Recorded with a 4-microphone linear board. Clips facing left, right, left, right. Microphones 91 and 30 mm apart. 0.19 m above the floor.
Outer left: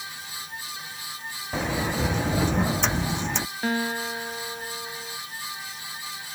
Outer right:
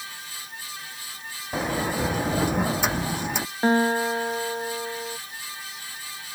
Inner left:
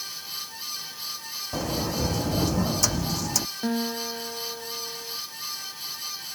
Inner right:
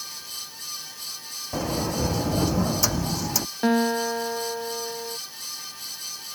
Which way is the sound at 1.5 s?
10° right (ahead or behind).